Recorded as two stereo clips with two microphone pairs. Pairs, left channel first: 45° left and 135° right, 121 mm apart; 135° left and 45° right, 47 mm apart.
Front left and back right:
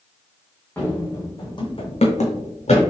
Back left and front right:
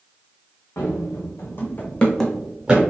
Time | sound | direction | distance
0.8 | running footsteps | 120° left | 1.3 m